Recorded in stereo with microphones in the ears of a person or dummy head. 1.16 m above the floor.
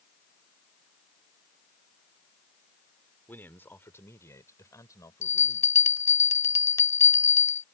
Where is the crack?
I don't hear a crack.